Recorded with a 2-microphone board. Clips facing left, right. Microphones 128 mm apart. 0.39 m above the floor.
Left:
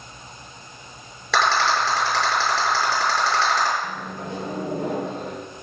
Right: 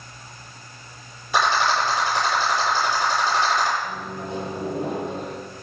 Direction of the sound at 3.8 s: 85° left.